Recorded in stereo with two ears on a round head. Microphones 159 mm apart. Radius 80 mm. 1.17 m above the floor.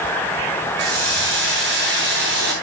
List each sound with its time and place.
0.8 s a hiss: 65° right (ahead or behind), 9.5 m